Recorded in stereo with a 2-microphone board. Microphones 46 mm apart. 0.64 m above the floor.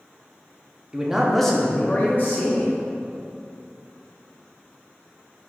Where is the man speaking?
20° right (ahead or behind), 0.6 m; by 2.7 s 55° left (ahead or behind), 0.8 m.